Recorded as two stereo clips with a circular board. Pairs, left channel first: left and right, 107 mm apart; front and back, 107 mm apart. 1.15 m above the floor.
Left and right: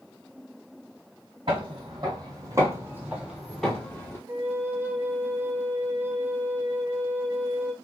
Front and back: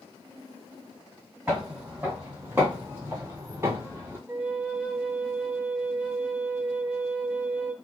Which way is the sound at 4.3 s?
120° right.